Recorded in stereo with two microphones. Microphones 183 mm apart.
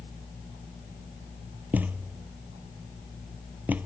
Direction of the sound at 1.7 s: 10° right (ahead or behind).